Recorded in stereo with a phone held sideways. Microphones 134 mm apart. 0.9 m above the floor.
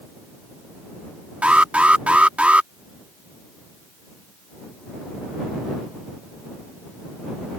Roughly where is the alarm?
Centre.